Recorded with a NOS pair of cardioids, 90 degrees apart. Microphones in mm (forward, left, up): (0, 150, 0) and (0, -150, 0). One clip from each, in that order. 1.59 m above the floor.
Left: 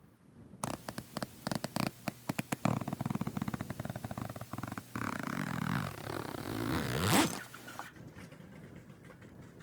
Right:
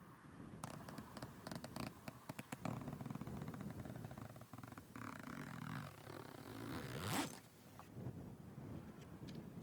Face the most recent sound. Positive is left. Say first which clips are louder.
# left 13 dB
turn(degrees=65)